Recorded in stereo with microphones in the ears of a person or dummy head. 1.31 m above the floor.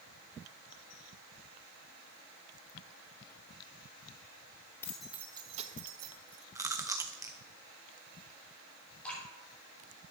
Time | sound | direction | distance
4.8 | keys jangling | 10° left (ahead or behind) | 0.9 m
6.5 | chewing | 15° right (ahead or behind) | 0.7 m
9.0 | dripping | 5° left (ahead or behind) | 3.5 m